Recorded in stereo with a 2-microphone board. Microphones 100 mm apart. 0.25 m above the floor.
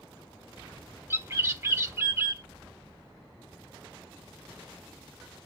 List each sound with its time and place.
1.1 s a bird: 30° right (ahead or behind), 0.6 m